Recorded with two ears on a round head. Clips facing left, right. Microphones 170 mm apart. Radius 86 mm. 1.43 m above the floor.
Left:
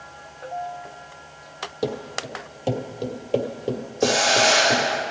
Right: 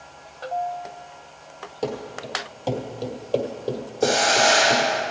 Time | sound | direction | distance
1.8 | running footsteps | 20° left (ahead or behind) | 2 m
4.0 | a hiss | 75° left (ahead or behind) | 3 m